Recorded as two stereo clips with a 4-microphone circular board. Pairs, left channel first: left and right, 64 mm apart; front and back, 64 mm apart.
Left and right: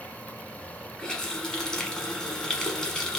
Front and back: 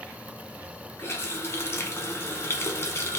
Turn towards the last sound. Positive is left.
turn(degrees=10)